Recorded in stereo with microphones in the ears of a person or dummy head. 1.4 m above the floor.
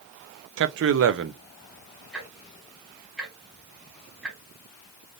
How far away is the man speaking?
About 0.6 m.